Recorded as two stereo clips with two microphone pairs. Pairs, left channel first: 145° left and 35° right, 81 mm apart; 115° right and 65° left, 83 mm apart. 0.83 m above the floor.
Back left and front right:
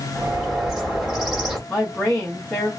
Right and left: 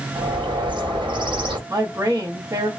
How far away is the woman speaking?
About 0.7 m.